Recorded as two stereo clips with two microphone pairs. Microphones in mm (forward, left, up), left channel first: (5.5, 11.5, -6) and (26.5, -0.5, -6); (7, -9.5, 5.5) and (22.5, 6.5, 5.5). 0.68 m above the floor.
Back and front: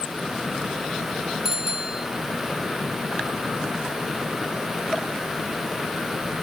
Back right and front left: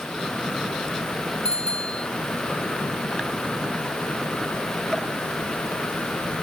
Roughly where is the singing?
No singing in this recording.